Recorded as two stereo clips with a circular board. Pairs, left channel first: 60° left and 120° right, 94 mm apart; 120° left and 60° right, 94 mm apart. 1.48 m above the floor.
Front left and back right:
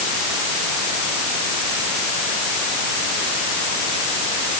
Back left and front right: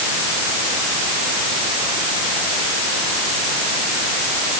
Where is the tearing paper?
No tearing paper in this recording.